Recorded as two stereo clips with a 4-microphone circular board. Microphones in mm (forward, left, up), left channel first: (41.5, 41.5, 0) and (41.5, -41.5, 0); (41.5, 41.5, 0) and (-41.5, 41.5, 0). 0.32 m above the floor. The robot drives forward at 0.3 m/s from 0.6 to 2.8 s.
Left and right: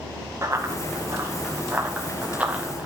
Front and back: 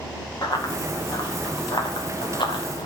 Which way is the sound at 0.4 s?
30° right.